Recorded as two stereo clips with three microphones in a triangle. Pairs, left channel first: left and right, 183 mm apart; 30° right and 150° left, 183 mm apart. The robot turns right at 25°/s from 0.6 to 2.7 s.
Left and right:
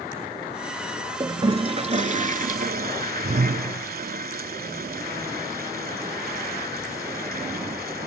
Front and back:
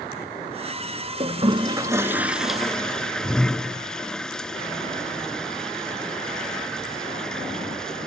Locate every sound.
1.2 s a toilet flushing: 155° right, 0.5 m; by 8.1 s 115° right, 0.5 m